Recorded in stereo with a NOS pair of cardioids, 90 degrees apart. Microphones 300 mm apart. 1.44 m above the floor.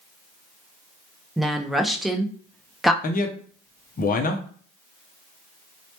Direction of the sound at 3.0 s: 30° left.